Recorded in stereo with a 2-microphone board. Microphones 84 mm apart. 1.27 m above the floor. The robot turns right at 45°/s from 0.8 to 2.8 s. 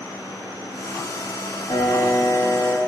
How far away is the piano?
About 2 m.